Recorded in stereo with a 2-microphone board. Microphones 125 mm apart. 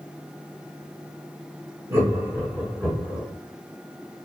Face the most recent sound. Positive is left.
turn(degrees=0)  # may be behind; listen again after turning